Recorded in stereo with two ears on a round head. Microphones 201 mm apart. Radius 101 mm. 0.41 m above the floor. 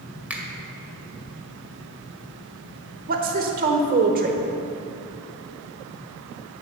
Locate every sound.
0.3 s a finger snap: 5° right (ahead or behind), 1.7 m
3.1 s a woman speaking: 40° right (ahead or behind), 1.0 m